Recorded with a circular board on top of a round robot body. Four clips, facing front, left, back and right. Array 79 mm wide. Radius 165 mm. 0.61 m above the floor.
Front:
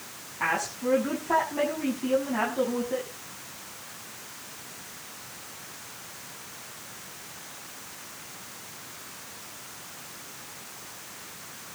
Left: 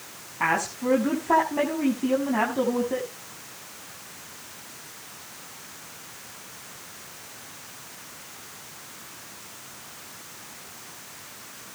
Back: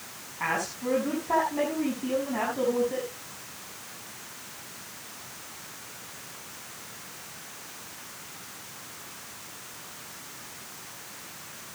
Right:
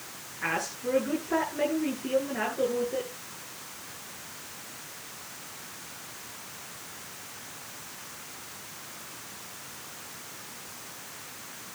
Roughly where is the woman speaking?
Left.